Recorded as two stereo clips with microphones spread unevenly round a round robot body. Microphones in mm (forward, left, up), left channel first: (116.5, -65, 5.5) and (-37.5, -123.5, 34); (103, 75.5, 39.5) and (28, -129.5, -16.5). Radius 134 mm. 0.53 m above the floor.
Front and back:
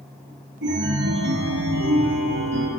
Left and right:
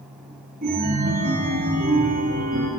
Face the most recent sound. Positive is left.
turn(degrees=-170)